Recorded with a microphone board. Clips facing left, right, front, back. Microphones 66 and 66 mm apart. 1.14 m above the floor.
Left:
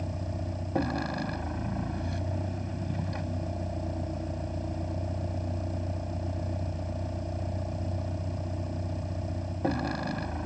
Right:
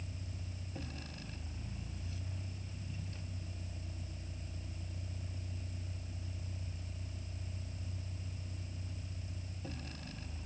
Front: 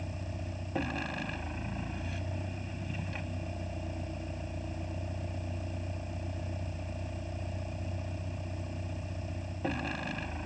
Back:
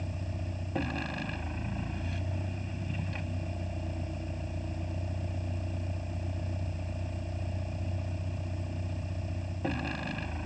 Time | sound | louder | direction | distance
0.0 | a vehicle | left 14 dB, back 1 dB | 90° left | ?